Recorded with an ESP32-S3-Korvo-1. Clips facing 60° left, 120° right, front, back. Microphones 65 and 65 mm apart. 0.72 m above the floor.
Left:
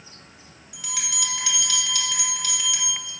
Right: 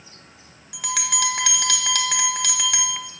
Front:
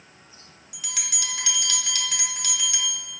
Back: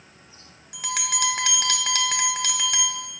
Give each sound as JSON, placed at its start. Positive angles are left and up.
{"t": 0.7, "sound": "a bell", "azimuth_deg": -145, "distance_m": 0.8}